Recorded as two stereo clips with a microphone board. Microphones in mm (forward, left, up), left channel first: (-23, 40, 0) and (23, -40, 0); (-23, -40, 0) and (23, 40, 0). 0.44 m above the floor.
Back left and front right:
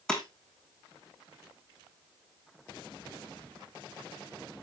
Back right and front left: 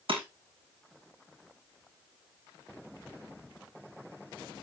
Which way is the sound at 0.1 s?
35° left.